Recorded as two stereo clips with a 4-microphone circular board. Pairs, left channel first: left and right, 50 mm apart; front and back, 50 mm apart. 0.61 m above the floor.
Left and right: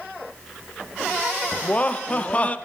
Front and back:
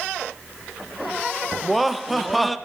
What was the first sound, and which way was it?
Laughter, 85° left.